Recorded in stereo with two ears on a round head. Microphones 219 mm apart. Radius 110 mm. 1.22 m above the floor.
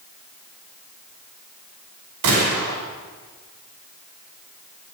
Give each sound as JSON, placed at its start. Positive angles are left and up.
{"t": 2.2, "sound": "a gunshot", "side_deg": -85, "distance_m": 5.5}